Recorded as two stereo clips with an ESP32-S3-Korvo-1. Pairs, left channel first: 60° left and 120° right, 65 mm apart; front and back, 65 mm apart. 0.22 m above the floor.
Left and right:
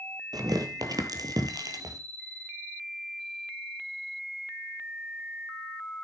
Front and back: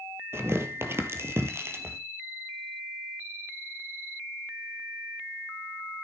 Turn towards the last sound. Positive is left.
turn(degrees=-130)